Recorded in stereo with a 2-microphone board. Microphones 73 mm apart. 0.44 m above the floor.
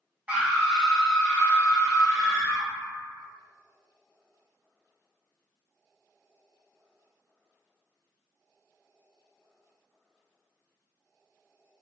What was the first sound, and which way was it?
A scream, 20° right (ahead or behind).